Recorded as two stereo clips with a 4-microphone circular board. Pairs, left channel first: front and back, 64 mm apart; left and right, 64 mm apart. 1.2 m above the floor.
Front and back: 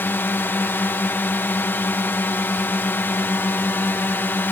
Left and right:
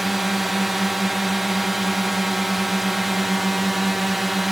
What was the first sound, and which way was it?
A drone, 5° right.